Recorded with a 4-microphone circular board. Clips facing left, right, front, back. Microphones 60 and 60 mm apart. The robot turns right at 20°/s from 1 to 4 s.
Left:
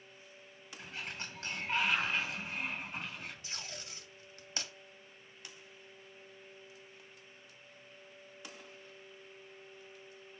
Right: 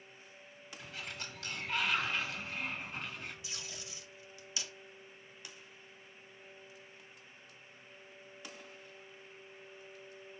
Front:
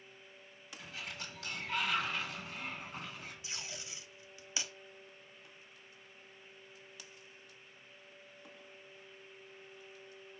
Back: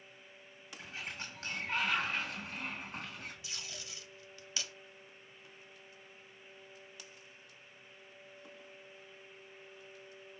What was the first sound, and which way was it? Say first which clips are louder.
A sliding door: left 2 dB, back 2 dB; 125° left.